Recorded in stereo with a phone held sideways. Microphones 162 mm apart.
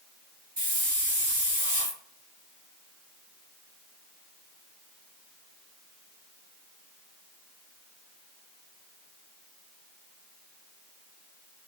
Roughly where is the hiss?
Right.